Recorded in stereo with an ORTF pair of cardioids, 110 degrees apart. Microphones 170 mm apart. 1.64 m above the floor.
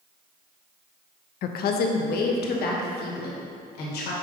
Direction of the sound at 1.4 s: 65° left.